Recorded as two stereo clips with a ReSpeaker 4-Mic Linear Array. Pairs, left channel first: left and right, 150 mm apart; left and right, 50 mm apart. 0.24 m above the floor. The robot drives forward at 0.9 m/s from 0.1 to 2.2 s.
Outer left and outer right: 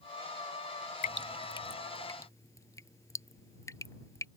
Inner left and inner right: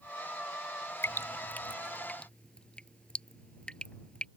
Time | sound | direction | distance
1.0 | dripping | 65° left (ahead or behind) | ?